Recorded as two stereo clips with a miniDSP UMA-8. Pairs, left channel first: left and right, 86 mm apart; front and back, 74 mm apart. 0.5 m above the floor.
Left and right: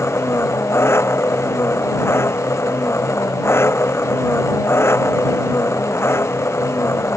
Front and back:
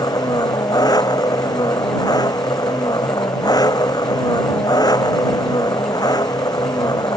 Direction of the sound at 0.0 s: 30° left.